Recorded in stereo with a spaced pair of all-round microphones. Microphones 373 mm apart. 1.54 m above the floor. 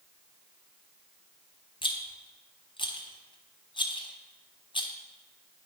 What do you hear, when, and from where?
1.8 s a rattle: 15° left (ahead or behind), 0.6 m